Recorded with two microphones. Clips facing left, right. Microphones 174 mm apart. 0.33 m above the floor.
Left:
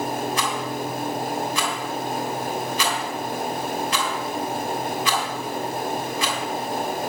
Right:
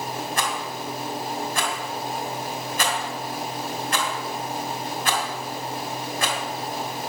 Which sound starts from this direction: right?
A rattle, at 0.4 s.